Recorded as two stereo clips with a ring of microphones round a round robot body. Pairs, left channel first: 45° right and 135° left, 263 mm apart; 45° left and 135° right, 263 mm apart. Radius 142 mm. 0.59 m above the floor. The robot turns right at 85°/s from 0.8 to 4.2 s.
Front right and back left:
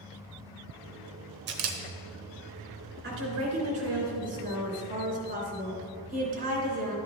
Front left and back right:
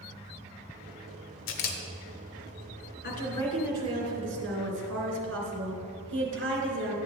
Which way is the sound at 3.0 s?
90° left.